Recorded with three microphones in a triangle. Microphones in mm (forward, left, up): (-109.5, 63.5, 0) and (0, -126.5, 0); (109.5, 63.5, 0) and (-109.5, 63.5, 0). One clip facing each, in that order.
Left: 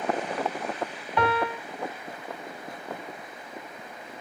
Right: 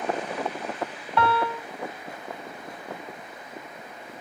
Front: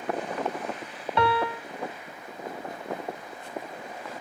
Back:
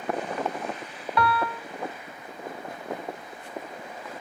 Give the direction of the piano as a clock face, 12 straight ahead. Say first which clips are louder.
Right 1 dB, front 1 dB; 10 o'clock.